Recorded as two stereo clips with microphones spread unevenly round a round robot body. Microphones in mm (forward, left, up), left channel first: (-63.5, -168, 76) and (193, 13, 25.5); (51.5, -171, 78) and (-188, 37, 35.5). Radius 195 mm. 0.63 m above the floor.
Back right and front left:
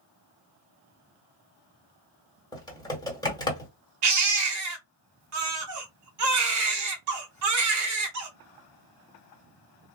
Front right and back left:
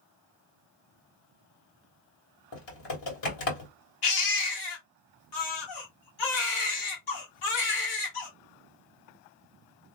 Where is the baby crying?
Straight ahead, 1.2 m.